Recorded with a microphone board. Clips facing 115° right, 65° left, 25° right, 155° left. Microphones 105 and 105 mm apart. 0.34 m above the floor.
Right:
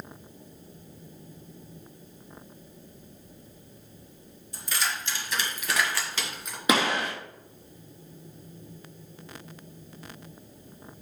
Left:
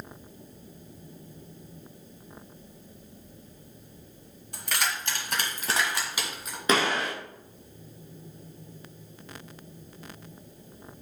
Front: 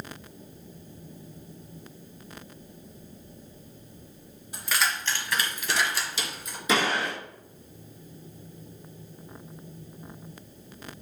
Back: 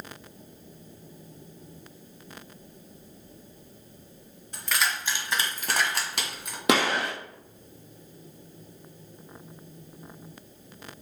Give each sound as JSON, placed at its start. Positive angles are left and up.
{"t": 4.5, "sound": "keys jangling", "azimuth_deg": 55, "distance_m": 2.0}
{"t": 6.7, "sound": "a gunshot", "azimuth_deg": 170, "distance_m": 3.0}